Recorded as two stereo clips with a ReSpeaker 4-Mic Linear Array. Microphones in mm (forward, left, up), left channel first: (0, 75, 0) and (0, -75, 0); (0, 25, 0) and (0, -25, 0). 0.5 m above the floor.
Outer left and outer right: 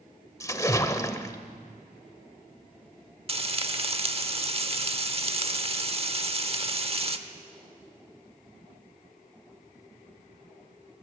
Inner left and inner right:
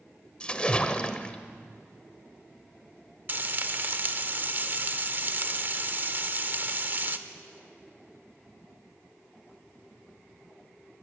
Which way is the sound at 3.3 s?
40° right (ahead or behind).